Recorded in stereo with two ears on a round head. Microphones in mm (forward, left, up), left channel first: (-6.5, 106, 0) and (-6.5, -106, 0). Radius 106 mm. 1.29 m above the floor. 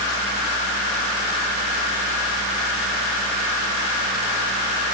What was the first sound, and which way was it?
Only background noise.